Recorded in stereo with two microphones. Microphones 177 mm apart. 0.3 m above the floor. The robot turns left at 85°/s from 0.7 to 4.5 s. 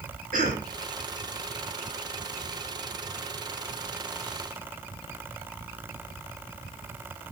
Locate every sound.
0.3 s a cough: 50° right (ahead or behind), 4 m